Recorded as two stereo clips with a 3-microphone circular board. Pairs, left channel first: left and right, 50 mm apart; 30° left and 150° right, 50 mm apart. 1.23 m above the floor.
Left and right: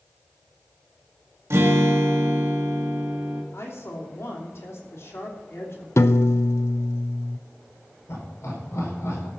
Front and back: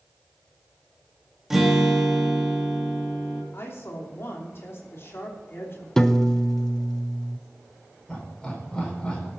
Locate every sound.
1.5 s a guitar: 70° right, 1.8 m
3.5 s a woman speaking: 65° left, 3 m
6.0 s a piano: 110° left, 0.5 m
8.1 s laughter: 105° left, 4.5 m